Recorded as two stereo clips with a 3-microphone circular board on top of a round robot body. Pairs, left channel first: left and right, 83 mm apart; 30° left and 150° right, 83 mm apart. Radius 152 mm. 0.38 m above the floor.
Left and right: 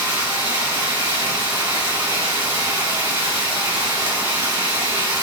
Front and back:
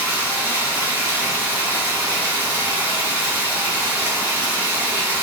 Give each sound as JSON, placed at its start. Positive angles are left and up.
{"t": 0.0, "sound": "running water", "azimuth_deg": -85, "distance_m": 2.0}